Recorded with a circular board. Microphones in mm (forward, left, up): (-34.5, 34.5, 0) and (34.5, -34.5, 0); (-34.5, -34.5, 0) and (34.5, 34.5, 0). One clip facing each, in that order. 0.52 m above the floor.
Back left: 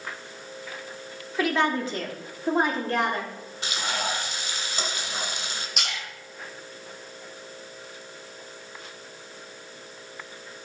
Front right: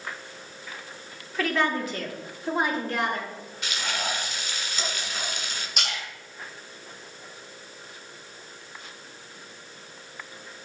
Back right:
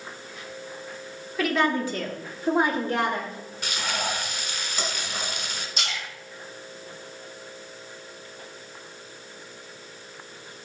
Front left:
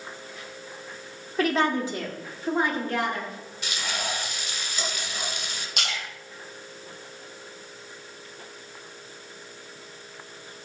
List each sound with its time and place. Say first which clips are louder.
1.4 s a woman speaking: back left 1 dB, even; 70° left, 1.3 m; by 3.3 s straight behind, 1.5 m
3.6 s frying: back left 2 dB, back right 3 dB; 170° right, 1.5 m
5.8 s a splash: front right 1 dB, front left 3 dB; 45° left, 4 m